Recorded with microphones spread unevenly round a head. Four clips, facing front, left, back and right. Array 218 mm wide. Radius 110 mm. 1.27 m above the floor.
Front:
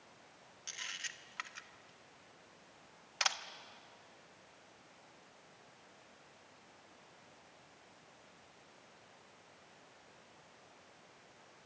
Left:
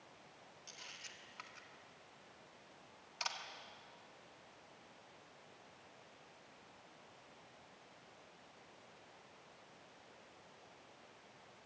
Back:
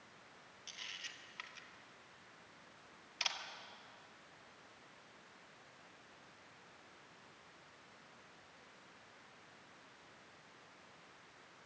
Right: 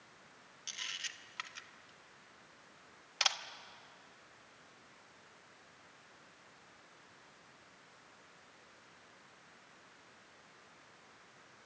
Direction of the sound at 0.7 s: 45° right.